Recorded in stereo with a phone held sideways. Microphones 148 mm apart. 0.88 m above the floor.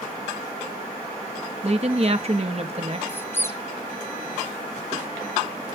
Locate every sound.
1.6 s a woman speaking: 45° right (ahead or behind), 1.2 m
3.1 s a squeak: 15° left (ahead or behind), 1.2 m